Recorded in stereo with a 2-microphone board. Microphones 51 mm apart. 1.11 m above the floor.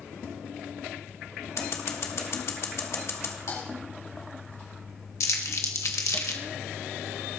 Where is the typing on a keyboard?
75° left (ahead or behind), 4.5 m.